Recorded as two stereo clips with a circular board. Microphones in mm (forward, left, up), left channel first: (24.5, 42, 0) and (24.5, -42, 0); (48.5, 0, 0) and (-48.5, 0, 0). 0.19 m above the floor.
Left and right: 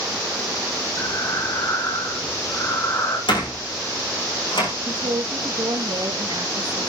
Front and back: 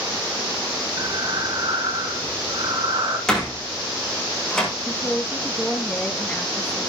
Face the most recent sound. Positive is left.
turn(degrees=-75)